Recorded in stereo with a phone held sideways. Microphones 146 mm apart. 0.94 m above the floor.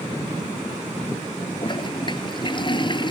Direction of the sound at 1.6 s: 35° left (ahead or behind).